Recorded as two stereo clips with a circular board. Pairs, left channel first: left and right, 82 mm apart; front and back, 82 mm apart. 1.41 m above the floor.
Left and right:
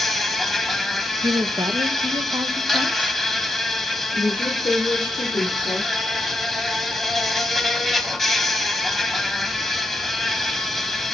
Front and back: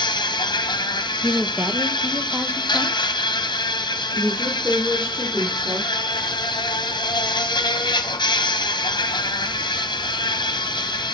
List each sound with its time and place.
0.0 s an insect: straight ahead, 0.8 m
1.2 s a woman speaking: 115° right, 0.9 m
4.1 s a woman speaking: 115° left, 3 m